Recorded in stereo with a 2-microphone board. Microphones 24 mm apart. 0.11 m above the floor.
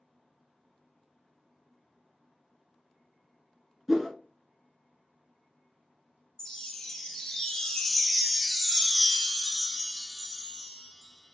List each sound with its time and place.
3.9 s a whoosh: centre (ahead or behind), 1.0 m
6.4 s a chime: 20° left (ahead or behind), 0.7 m